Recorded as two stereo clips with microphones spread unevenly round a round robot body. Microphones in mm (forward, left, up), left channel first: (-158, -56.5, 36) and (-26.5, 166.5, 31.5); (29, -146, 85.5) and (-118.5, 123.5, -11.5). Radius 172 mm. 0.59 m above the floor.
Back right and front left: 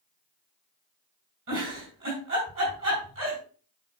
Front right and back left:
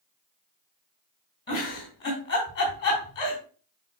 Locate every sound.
1.5 s a giggle: 5° left, 5.5 m